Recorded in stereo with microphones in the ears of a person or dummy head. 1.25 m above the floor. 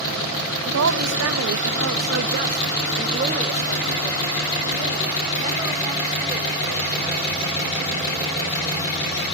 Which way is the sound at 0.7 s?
70° right (ahead or behind).